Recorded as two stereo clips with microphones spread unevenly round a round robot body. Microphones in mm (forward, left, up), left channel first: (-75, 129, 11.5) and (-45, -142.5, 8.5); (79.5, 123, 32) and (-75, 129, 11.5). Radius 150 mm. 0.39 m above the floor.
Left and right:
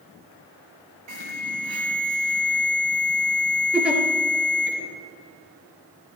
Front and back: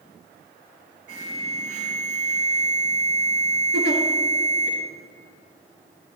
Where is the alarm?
100° right, 4.5 m.